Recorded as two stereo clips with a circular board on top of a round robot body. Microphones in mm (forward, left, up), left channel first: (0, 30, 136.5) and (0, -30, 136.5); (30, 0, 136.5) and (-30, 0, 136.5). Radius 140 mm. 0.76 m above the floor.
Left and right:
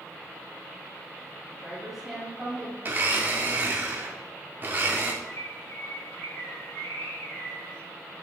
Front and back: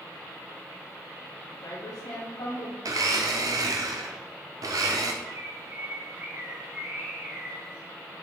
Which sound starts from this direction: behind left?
A bird, at 5.2 s.